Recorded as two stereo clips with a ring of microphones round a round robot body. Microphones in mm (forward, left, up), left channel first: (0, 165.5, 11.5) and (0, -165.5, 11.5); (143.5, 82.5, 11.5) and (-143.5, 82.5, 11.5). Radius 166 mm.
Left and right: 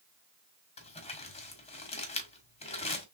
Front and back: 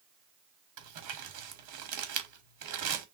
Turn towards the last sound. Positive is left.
turn(degrees=165)